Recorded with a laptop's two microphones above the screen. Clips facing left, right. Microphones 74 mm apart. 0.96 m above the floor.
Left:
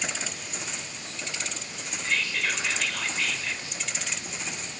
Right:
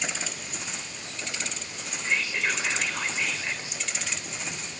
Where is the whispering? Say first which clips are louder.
Right 1 dB; 20° right (ahead or behind), 3.5 m.